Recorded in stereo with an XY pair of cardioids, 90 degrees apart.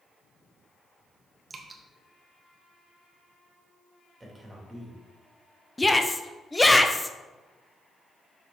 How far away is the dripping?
About 1.4 m.